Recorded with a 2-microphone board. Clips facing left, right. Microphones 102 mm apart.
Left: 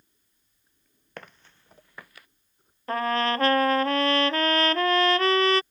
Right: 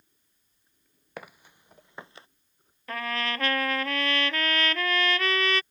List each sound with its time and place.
1.2 s footsteps: 5° right (ahead or behind); by 2.3 s 30° right (ahead or behind)
2.9 s a trumpet: 35° left (ahead or behind)